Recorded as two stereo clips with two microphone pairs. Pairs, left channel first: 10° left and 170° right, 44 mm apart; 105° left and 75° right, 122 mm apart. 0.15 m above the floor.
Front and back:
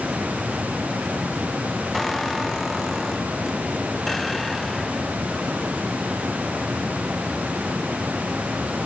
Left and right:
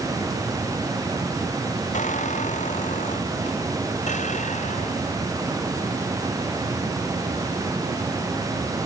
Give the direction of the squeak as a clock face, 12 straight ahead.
9 o'clock.